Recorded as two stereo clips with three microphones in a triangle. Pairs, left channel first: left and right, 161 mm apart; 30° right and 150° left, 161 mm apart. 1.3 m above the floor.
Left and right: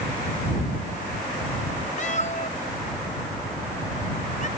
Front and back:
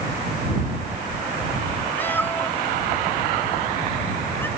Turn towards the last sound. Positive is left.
turn(degrees=45)